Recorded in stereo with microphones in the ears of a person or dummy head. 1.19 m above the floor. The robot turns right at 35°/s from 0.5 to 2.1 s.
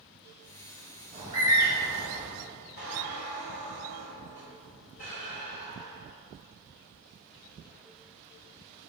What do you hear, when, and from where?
1.1 s a bird: 30° right (ahead or behind), 1.1 m; by 2.3 s centre (ahead or behind), 1.1 m
2.8 s a squeak: 40° left (ahead or behind), 0.8 m